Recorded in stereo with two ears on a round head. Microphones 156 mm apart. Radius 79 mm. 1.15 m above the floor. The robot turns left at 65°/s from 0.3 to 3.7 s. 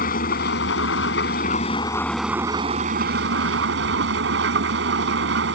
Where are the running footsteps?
I don't hear running footsteps.